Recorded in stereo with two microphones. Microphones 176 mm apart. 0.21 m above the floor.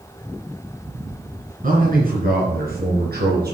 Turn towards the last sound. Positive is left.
turn(degrees=-65)  # may be behind; listen again after turning